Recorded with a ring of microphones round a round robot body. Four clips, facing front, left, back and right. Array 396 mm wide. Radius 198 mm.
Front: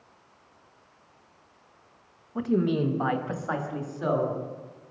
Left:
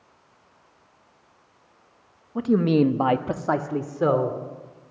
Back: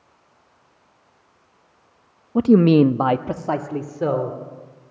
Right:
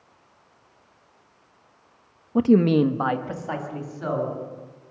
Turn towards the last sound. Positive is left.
turn(degrees=120)